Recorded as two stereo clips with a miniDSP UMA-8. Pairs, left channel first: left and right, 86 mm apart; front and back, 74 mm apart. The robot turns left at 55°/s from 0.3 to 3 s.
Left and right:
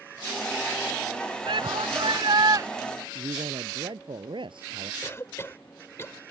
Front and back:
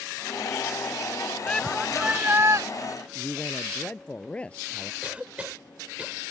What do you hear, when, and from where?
1.5 s a shout: 75° right; by 2.7 s 140° right
3.1 s a man speaking: 75° right
5.0 s a cough: 120° left